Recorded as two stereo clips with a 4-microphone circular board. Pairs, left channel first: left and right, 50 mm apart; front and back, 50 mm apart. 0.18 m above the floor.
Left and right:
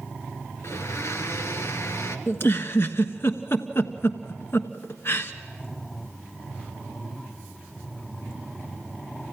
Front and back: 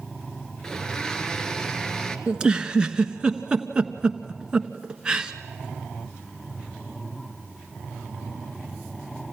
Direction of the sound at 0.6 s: 75° left.